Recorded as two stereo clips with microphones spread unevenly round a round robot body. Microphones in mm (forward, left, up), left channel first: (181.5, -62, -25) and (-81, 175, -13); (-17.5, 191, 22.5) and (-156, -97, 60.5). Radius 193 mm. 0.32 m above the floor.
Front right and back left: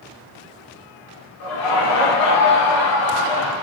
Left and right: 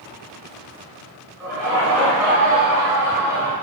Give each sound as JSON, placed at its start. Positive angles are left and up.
{"t": 1.4, "sound": "laughter", "azimuth_deg": -30, "distance_m": 1.2}